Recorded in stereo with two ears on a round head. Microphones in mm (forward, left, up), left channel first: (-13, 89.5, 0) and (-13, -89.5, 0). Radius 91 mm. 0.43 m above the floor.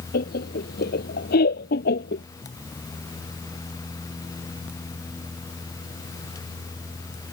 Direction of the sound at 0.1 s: 50° left (ahead or behind).